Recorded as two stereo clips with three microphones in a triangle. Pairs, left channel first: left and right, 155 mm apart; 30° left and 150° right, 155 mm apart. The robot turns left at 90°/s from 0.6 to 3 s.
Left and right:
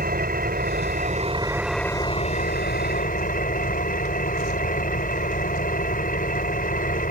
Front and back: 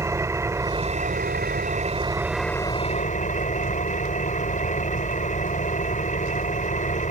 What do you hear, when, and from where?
0.0 s an engine running: 80° right; by 7.1 s 65° left